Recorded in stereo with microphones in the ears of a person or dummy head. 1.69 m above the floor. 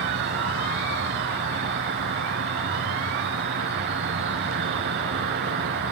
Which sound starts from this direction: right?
An insect, at 0.0 s.